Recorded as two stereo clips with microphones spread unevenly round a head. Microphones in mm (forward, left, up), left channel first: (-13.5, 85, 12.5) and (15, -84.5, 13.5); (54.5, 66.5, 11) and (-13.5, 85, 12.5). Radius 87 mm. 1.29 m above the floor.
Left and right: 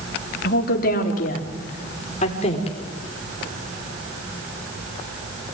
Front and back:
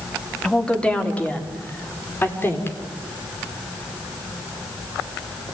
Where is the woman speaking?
65° left, 3.5 m; by 2.8 s 40° left, 5 m.